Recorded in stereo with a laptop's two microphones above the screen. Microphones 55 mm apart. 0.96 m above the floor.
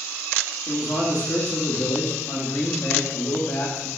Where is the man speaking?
50° left (ahead or behind), 2 m.